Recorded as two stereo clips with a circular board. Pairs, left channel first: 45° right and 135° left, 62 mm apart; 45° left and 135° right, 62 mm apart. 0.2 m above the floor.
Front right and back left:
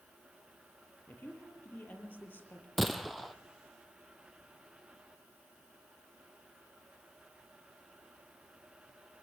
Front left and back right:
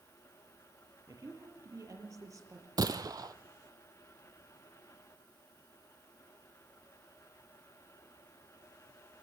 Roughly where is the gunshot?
Behind right.